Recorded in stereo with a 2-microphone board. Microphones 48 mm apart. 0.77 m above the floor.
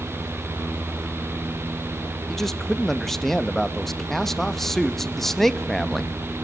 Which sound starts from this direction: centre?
A man speaking, at 2.3 s.